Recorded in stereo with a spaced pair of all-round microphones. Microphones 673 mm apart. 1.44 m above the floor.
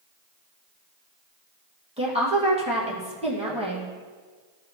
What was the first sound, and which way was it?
A woman speaking, 10° right (ahead or behind).